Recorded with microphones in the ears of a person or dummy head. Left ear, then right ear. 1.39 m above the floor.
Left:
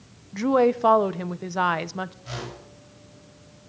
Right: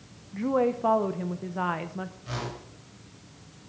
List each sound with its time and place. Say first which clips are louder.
0.3 s a woman speaking: left 5 dB; 85° left, 0.7 m
2.2 s a whoosh: even; 15° left (ahead or behind), 7 m